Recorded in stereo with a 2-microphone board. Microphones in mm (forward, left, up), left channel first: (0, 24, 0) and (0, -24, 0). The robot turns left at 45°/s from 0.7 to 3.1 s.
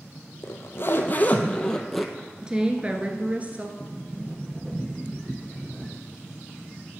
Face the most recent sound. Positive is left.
turn(degrees=-20)  # may be behind; listen again after turning